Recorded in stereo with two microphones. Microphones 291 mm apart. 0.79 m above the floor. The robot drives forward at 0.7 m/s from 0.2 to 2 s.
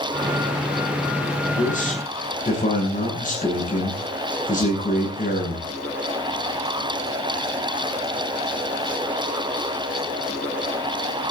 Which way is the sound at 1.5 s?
25° left (ahead or behind).